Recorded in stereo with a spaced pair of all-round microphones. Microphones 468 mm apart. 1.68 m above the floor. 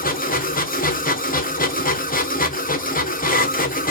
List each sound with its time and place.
0.0 s a machine running: 20° left (ahead or behind), 0.8 m